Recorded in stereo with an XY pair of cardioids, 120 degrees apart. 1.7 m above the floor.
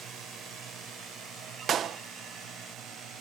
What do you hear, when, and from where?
0.0 s a drone: 65° right; by 3.2 s 75° right
1.7 s a clap: 50° right